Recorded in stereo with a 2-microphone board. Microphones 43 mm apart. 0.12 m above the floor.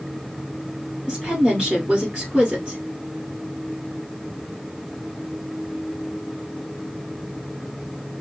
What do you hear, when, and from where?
1.1 s a woman speaking: 20° right (ahead or behind), 1.7 m